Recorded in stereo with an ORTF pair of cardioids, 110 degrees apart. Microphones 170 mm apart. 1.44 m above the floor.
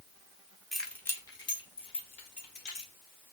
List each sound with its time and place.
0.7 s keys jangling: straight ahead, 1.1 m; by 2.9 s 45° left, 3 m